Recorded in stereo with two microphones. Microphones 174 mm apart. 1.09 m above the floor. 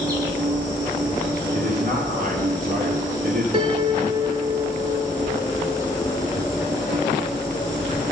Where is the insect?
20° right (ahead or behind), 5 m.